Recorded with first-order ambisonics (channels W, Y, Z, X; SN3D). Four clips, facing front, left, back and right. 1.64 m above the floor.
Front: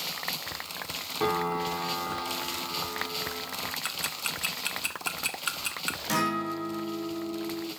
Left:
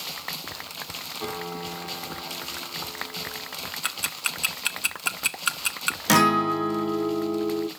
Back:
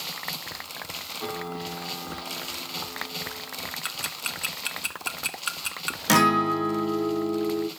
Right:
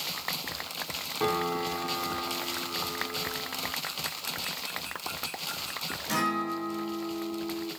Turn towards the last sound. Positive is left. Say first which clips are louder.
# left 10 dB, back 9 dB
turn(degrees=130)